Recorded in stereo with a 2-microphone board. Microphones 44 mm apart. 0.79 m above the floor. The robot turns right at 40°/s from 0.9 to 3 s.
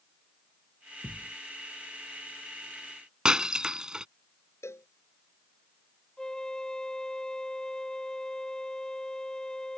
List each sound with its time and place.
1.0 s a thud: 80° left
3.2 s breaking glass: 15° right (ahead or behind)
4.6 s a cowbell: 90° left
6.2 s a flute: 15° left (ahead or behind)